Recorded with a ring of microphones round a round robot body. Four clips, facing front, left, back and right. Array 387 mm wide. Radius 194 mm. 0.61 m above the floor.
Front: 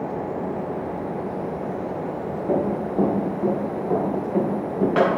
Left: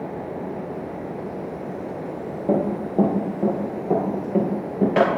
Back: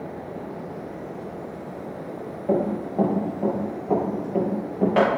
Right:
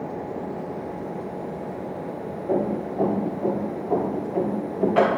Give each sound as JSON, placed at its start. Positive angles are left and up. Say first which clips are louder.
{"t": 2.5, "sound": "running footsteps", "louder": "left 2 dB, even", "azimuth_deg": 70, "distance_m": 5.0}